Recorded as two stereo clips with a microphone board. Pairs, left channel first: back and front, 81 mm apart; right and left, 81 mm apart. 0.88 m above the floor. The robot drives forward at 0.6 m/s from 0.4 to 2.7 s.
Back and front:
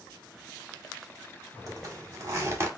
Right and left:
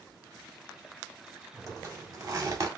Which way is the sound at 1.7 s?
40° left.